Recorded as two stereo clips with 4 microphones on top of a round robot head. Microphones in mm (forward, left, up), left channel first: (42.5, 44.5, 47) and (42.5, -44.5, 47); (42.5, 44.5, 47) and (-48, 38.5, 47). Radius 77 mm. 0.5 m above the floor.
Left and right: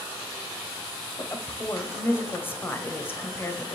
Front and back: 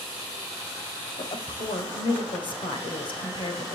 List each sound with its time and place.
1.2 s a woman speaking: 25° left, 2.5 m